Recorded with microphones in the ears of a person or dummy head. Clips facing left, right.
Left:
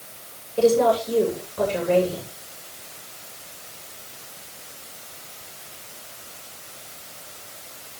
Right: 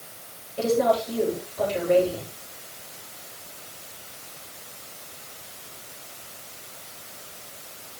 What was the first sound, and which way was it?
A woman speaking, 80° left.